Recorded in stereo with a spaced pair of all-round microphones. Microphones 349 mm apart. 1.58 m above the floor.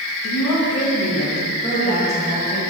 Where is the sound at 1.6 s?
20° left (ahead or behind), 2.5 m.